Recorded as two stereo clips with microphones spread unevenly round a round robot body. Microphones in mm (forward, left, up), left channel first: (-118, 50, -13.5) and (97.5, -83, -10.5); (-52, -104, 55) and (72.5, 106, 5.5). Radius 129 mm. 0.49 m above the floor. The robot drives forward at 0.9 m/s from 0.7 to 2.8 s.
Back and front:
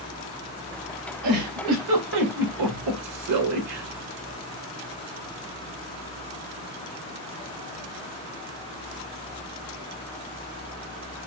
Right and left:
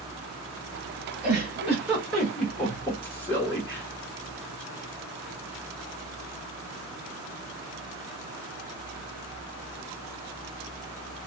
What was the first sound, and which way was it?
A giggle, 20° right.